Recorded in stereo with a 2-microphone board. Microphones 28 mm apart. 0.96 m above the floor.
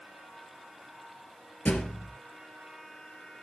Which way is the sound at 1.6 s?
75° left (ahead or behind).